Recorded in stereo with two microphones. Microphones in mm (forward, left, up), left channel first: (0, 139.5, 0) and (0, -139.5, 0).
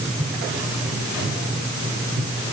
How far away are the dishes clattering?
I don't hear dishes clattering.